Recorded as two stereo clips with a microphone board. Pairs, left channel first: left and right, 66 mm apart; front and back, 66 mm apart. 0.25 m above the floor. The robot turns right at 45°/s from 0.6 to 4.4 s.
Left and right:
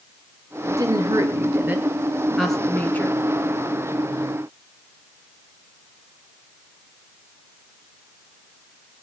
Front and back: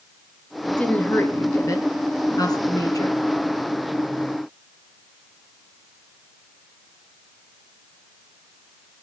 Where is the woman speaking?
80° right, 3.5 m; by 3.1 s 35° left, 3.5 m.